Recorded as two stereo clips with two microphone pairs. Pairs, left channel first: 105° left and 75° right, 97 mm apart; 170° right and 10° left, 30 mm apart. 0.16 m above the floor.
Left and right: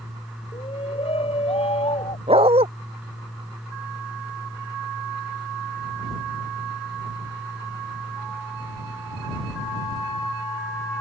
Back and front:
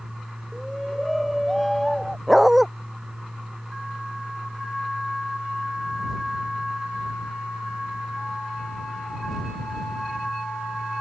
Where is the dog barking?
80° right.